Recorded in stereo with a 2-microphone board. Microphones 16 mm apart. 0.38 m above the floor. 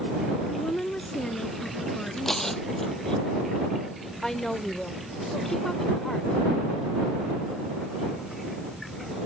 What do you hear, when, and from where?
0.5 s a woman speaking: 75° left (ahead or behind)
2.2 s tearing paper: 20° left (ahead or behind)
4.2 s a woman speaking: 35° left (ahead or behind)